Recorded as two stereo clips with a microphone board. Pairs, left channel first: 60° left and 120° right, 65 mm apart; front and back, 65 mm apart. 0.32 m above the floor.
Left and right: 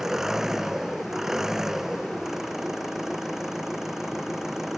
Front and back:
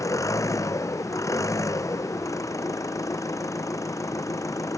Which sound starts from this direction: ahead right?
An engine running, at 0.0 s.